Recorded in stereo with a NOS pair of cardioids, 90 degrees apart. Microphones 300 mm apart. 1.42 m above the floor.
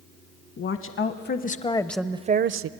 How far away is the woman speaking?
About 1.2 m.